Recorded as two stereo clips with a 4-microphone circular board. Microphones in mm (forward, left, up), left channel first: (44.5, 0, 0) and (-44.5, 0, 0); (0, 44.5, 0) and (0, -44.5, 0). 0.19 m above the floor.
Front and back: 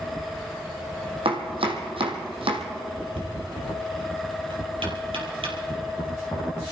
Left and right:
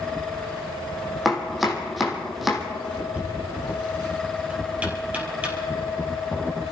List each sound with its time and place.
1.2 s chopping: straight behind, 2 m
3.1 s knocking: 165° right, 4 m